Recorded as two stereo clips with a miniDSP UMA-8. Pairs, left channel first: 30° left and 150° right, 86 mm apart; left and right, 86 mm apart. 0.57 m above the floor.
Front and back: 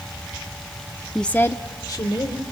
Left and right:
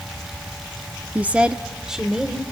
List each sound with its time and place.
1.1 s a woman speaking: 55° right, 0.6 m; by 2.4 s 5° right, 1.9 m